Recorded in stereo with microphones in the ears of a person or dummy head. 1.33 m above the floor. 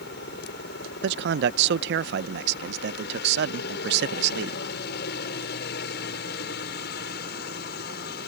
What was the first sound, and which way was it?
A helicopter, 70° left (ahead or behind).